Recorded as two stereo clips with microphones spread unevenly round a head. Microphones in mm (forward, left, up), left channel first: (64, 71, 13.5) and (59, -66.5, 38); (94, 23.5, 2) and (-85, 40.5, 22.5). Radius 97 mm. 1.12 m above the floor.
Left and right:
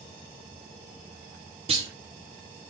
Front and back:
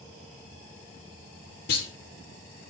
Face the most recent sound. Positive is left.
turn(degrees=-50)